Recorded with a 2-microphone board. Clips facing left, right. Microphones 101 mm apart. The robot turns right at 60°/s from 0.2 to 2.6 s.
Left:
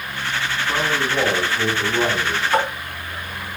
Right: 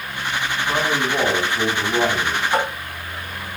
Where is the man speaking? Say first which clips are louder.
Right 1 dB; 155° right, 5.5 m; by 2.4 s 45° right, 5.5 m.